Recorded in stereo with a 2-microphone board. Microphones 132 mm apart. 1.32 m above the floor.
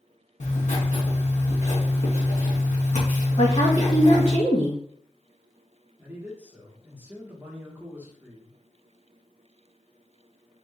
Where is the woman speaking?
45° left (ahead or behind), 1.2 m.